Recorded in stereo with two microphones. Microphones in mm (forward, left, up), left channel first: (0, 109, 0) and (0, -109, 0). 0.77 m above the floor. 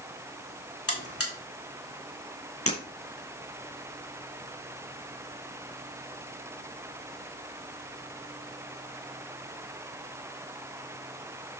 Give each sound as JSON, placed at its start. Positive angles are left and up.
{"t": 0.9, "sound": "a buzzer", "side_deg": 80, "distance_m": 3.0}
{"t": 2.7, "sound": "breaking glass", "side_deg": 80, "distance_m": 4.5}